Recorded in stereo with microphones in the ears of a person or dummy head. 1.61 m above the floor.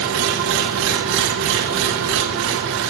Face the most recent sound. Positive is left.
turn(degrees=-70)  # may be behind; listen again after turning